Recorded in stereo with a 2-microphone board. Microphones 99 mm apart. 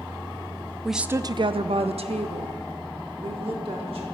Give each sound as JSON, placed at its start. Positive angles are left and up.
{"t": 0.8, "sound": "a woman speaking", "side_deg": 5, "distance_m": 0.7}